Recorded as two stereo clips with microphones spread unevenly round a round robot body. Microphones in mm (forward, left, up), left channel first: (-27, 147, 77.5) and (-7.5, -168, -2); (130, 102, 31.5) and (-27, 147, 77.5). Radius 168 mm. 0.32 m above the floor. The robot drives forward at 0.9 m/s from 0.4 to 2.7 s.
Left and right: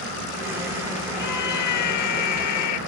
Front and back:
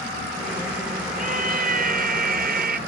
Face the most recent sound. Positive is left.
turn(degrees=135)